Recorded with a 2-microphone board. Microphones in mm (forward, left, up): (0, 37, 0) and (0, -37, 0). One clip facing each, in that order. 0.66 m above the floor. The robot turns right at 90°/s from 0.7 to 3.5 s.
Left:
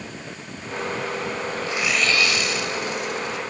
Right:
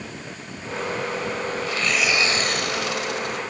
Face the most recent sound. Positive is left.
turn(degrees=-40)